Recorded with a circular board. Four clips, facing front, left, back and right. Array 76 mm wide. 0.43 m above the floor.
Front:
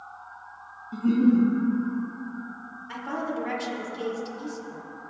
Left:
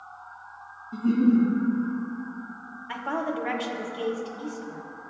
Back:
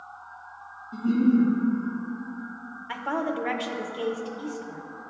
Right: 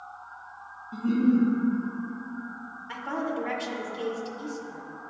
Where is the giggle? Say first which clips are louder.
Left 2 dB, front 1 dB; 25° right, 2 m.